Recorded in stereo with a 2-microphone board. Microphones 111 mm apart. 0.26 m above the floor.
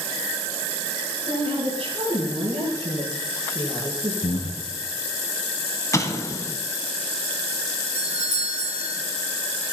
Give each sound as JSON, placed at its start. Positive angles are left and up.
{"t": 1.3, "sound": "a woman speaking", "side_deg": -50, "distance_m": 5.5}
{"t": 4.2, "sound": "breathing", "side_deg": 65, "distance_m": 2.0}
{"t": 5.9, "sound": "an explosion", "side_deg": 30, "distance_m": 1.3}
{"t": 8.0, "sound": "a doorbell", "side_deg": -65, "distance_m": 4.5}